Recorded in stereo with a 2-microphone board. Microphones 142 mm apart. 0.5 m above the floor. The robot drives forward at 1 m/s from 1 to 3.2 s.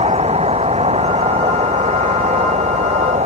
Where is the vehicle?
50° right (ahead or behind); by 3.3 s 60° right (ahead or behind).